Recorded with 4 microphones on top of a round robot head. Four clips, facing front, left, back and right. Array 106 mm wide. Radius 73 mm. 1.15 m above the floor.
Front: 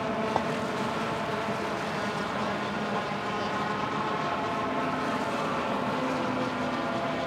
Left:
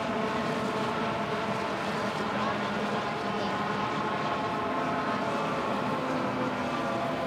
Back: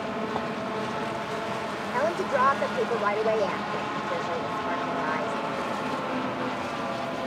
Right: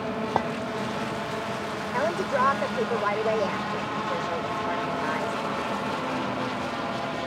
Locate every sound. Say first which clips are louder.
0.4 s a clink: right 6 dB, front 3 dB; 70° right
1.9 s a woman speaking: right 5 dB, back 6 dB; 140° right